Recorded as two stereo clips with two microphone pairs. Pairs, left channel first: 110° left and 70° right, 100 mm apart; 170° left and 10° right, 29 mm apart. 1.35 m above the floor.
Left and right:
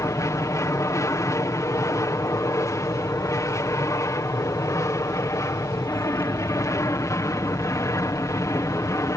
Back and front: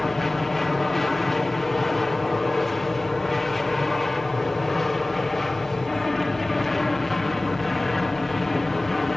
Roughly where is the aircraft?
Left.